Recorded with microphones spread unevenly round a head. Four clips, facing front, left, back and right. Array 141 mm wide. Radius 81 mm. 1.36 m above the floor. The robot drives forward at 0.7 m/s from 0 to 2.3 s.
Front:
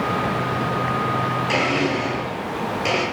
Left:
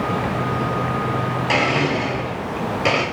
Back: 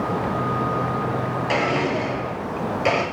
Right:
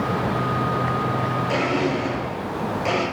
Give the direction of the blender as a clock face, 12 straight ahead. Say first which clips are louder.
Left 4 dB, back 1 dB; 9 o'clock.